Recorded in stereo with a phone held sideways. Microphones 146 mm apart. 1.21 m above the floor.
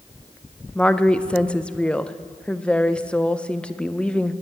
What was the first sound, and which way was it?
A woman speaking, 10° left (ahead or behind).